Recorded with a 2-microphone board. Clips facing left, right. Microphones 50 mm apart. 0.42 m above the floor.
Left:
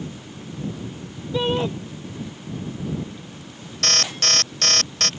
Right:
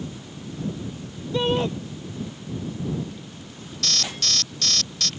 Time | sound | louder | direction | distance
1.3 | a shout | even | centre (ahead or behind) | ?
3.8 | an alarm | left 5 dB | 50° left (ahead or behind) | ?